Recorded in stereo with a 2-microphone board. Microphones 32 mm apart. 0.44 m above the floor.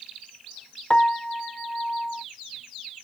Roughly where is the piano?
Left.